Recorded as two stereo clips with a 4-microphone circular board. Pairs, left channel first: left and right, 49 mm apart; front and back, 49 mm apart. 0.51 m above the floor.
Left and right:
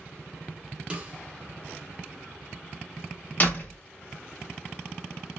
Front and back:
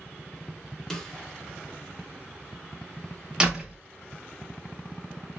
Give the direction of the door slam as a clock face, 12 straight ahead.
8 o'clock.